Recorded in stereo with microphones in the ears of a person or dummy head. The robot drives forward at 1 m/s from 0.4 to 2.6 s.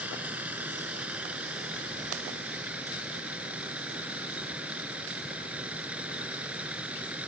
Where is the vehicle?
5° right (ahead or behind).